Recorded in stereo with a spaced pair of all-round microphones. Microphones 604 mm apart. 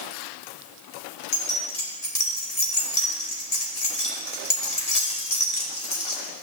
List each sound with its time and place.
1.3 s keys jangling: 70° left (ahead or behind), 1.9 m